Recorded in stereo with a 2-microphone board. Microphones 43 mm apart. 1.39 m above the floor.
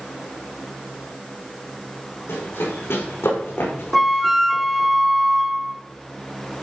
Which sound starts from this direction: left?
Running footsteps, at 2.3 s.